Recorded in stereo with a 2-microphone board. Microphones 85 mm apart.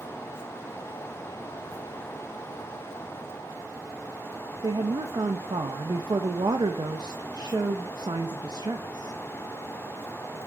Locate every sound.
4.6 s a woman speaking: 55° right (ahead or behind), 0.7 m